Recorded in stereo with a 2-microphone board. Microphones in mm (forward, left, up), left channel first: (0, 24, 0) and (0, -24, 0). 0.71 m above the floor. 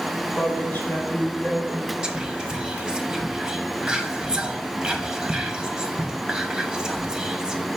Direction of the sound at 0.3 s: 45° left (ahead or behind).